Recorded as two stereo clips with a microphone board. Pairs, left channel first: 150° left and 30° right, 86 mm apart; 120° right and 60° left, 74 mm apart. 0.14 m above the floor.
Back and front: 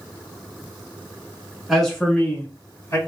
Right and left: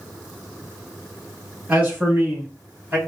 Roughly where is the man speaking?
Ahead left.